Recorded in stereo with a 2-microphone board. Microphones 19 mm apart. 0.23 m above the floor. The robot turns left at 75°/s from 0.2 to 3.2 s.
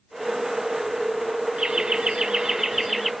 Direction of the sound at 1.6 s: 70° right.